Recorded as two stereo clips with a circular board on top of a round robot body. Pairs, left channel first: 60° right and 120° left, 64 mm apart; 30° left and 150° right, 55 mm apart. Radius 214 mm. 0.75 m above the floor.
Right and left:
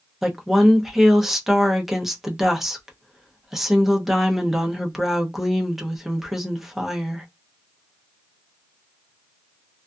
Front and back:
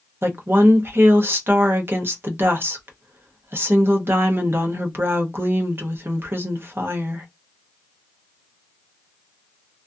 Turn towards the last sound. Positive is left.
turn(degrees=-155)